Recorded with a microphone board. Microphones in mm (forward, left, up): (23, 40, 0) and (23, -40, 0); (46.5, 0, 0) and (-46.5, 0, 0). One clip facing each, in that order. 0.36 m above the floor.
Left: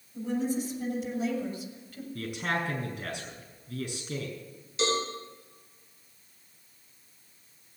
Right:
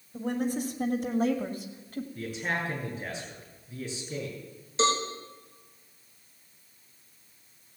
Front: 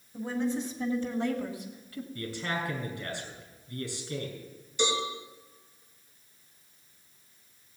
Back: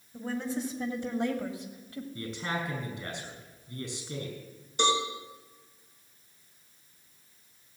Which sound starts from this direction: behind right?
A cowbell, at 4.8 s.